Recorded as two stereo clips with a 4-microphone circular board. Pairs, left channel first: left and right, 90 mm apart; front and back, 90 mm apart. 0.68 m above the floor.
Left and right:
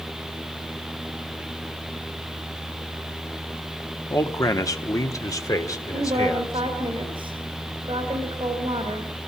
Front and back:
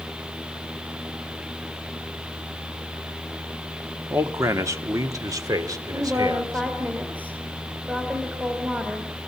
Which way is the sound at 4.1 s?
130° left.